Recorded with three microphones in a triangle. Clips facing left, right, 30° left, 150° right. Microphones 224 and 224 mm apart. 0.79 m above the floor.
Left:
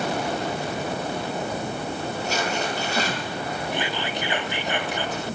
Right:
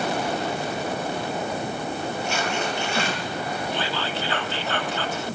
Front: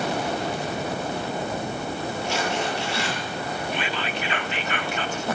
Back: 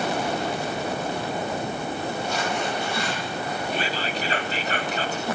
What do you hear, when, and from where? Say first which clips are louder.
2.3 s tearing paper: left 2 dB, front 3 dB; 40° left, 7.5 m
3.7 s whispering: even, back 1 dB; 165° left, 1.8 m